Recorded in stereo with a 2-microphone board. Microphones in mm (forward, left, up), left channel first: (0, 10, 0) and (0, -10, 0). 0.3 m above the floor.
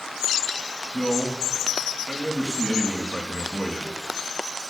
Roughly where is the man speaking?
Centre.